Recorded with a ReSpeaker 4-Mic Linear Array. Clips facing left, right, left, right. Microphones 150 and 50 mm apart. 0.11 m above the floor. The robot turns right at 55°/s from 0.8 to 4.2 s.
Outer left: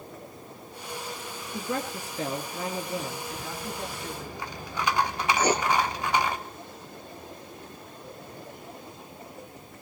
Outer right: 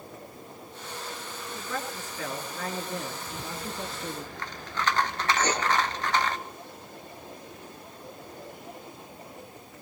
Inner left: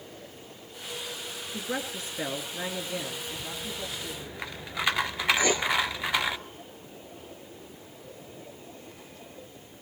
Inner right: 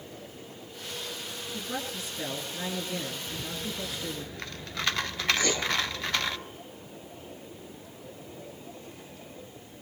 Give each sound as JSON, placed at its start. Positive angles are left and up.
{"t": 1.5, "sound": "a woman speaking", "azimuth_deg": 90, "distance_m": 2.0}
{"t": 3.3, "sound": "a rattle", "azimuth_deg": -35, "distance_m": 0.6}
{"t": 5.4, "sound": "writing", "side_deg": 10, "distance_m": 1.3}